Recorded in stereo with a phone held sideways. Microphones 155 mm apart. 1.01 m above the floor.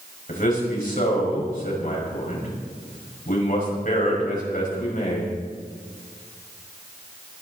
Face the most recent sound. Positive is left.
turn(degrees=65)  # may be behind; listen again after turning